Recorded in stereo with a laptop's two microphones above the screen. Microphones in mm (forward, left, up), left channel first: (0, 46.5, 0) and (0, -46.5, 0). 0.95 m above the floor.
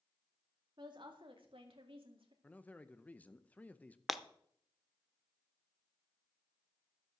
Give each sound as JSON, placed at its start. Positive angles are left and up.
{"t": 0.8, "sound": "a woman speaking", "side_deg": -55, "distance_m": 2.0}
{"t": 2.4, "sound": "a man speaking", "side_deg": 15, "distance_m": 0.7}
{"t": 4.1, "sound": "breaking glass", "side_deg": 0, "distance_m": 0.6}